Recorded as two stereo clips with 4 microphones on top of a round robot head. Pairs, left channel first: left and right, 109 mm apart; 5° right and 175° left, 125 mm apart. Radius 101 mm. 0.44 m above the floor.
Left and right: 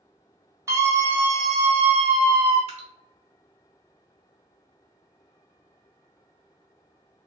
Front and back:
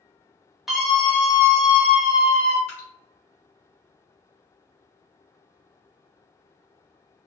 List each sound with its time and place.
0.7 s a scream: 100° right, 1.1 m; by 2.6 s 20° right, 1.7 m
2.7 s dripping: 75° right, 0.9 m